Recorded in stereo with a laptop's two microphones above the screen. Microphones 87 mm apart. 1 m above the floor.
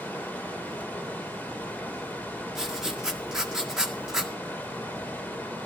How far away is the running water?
About 3.5 m.